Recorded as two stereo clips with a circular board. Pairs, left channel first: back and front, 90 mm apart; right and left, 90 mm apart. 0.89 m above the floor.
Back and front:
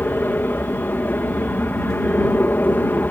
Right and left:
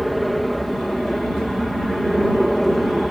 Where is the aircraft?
Straight behind.